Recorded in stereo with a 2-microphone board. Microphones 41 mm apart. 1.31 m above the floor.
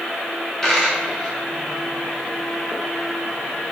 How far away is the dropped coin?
About 1.0 m.